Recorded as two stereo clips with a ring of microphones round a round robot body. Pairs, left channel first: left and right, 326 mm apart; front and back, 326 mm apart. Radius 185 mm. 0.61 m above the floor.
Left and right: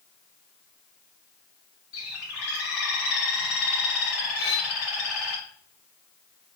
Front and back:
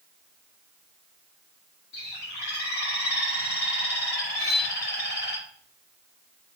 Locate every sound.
1.9 s a bird: 55° left, 2.0 m
4.4 s cutlery clinking: 105° left, 4.5 m